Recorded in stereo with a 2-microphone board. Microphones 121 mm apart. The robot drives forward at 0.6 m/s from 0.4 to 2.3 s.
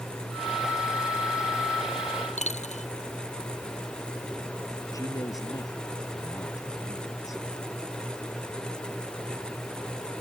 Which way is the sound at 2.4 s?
70° left (ahead or behind).